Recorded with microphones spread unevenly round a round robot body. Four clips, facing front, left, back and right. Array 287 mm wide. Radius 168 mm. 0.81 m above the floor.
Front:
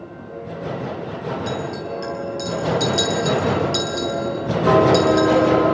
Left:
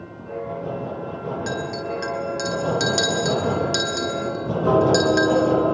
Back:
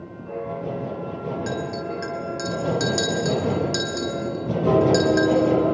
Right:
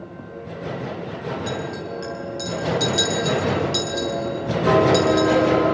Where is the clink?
80° left, 9 m.